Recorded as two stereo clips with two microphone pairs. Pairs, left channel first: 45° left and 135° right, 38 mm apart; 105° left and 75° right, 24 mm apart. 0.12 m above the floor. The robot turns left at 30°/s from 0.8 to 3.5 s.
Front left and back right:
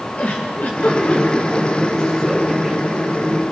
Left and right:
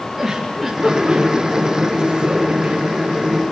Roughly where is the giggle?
Ahead.